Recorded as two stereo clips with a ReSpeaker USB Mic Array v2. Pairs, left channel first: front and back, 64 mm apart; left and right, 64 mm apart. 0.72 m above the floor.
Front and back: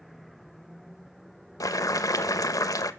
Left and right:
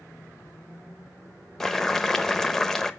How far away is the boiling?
About 0.8 m.